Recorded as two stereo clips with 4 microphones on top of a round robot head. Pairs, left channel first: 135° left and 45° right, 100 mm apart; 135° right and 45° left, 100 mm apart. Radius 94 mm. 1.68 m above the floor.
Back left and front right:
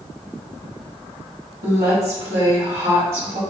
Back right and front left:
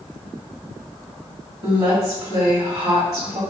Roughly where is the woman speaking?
Ahead.